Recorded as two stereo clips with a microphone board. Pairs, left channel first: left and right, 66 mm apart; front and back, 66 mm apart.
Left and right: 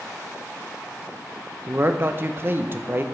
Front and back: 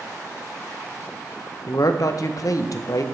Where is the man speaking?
35° right, 0.6 m.